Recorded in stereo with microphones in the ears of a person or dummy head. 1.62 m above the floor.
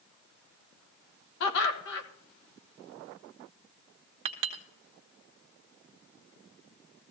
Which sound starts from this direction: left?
Laughter, at 1.4 s.